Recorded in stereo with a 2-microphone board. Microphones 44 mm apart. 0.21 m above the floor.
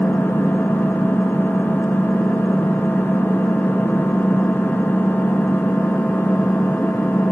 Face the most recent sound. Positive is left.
turn(degrees=65)  # may be behind; listen again after turning